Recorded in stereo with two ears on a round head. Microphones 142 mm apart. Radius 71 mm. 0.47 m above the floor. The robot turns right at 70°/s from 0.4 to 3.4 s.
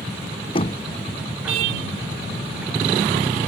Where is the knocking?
35° left (ahead or behind); by 0.9 s 55° left (ahead or behind).